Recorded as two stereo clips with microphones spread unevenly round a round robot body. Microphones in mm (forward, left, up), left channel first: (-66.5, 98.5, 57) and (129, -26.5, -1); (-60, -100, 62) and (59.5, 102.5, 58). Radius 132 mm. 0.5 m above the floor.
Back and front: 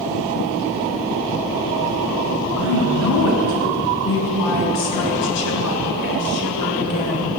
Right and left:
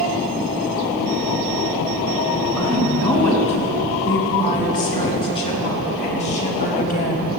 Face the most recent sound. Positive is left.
turn(degrees=-170)